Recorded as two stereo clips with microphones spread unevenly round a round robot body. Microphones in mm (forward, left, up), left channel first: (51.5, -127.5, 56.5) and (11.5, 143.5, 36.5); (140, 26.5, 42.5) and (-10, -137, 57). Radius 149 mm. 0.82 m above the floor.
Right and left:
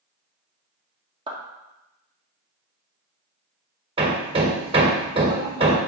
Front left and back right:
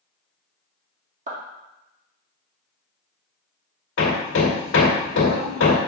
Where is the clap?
170° left, 1.7 m.